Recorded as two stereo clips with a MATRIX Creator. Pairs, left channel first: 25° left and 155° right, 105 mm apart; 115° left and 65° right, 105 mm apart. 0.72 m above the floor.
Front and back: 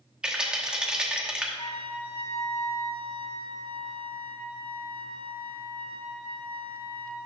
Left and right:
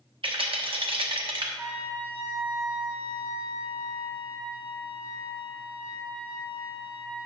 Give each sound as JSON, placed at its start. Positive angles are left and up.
{"t": 0.2, "sound": "a rattle", "azimuth_deg": -80, "distance_m": 1.0}
{"t": 1.6, "sound": "a trumpet", "azimuth_deg": 20, "distance_m": 2.0}